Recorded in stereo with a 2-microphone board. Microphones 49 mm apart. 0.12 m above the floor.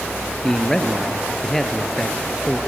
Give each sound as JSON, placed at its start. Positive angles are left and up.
{"t": 0.4, "sound": "a man speaking", "side_deg": 5, "distance_m": 1.9}